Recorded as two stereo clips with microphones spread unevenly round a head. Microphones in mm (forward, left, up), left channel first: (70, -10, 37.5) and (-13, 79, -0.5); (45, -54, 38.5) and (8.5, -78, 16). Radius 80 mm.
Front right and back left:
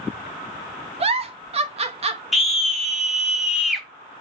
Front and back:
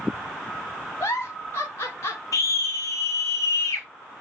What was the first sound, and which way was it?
A giggle, 90° left.